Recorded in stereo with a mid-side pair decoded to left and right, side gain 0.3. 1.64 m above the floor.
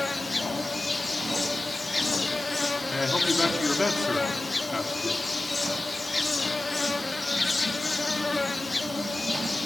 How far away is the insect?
About 1.3 m.